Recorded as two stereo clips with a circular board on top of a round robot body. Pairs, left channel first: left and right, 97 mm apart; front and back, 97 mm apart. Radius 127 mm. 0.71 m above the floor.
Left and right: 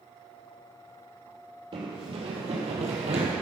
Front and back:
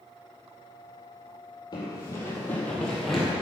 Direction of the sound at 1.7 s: 55° right.